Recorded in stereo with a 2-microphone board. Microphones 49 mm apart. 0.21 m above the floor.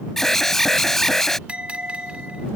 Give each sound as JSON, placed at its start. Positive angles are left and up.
{"t": 0.2, "sound": "an alarm", "side_deg": 5}
{"t": 1.5, "sound": "a bell", "side_deg": -25}